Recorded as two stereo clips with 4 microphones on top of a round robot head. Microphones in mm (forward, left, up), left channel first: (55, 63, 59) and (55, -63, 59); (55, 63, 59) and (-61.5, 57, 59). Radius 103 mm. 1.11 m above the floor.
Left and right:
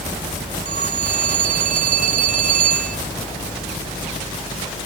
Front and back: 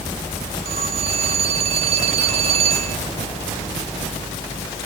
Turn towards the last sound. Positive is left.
turn(degrees=-125)